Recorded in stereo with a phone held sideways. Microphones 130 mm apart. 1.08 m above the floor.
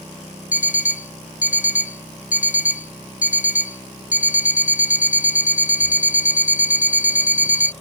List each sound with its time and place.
0.5 s an alarm clock: 75° left (ahead or behind)